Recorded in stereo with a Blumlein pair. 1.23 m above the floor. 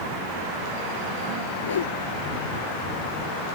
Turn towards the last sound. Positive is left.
turn(degrees=65)